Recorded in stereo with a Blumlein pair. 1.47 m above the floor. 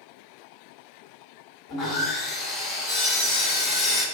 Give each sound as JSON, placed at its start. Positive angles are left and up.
{"t": 1.7, "sound": "sawing", "azimuth_deg": 35, "distance_m": 1.5}